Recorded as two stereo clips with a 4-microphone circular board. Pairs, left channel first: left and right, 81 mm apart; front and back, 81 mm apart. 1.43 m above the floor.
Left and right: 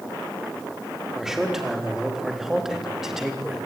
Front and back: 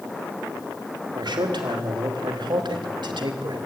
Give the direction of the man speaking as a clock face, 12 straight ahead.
6 o'clock.